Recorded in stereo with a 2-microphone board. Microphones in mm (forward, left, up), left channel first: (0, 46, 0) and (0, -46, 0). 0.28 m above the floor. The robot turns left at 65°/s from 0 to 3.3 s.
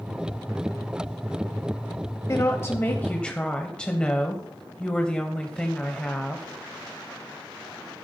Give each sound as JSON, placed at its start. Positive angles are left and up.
{"t": 2.3, "sound": "a woman speaking", "azimuth_deg": 85, "distance_m": 1.0}